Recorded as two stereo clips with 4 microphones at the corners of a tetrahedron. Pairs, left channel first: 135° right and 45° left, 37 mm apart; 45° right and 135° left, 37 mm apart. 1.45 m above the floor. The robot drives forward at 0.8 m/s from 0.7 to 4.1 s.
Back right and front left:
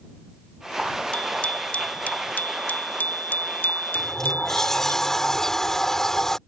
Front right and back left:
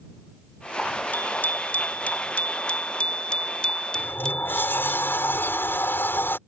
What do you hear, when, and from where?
1.1 s a bicycle bell: 80° right; by 5.0 s 115° right
4.0 s a sliding door: 55° right